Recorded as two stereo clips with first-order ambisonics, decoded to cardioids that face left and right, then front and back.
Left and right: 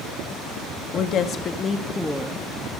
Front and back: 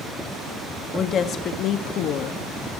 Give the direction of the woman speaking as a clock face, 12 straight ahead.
10 o'clock.